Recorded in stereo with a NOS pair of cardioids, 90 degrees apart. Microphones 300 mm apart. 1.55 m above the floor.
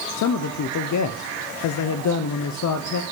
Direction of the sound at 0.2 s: 70° left.